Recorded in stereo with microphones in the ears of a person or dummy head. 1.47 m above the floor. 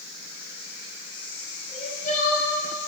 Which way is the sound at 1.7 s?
45° left (ahead or behind).